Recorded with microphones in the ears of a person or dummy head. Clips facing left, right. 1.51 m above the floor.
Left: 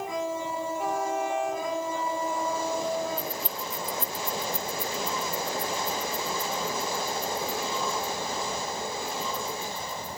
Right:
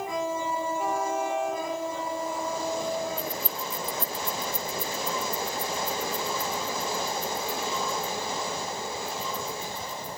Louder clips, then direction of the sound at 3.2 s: Right 1 dB; 15° left (ahead or behind).